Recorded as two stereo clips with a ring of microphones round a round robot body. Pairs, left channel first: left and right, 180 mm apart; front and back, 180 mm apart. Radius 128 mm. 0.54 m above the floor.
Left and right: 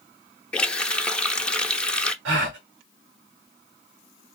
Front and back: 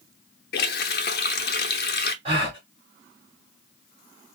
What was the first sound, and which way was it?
A running tap, 5° left.